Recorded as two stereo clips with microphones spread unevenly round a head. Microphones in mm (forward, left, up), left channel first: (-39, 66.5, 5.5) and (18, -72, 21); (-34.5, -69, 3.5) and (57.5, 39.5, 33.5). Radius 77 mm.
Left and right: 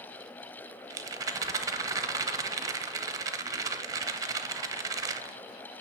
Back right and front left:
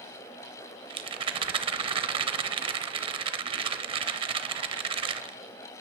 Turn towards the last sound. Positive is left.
turn(degrees=0)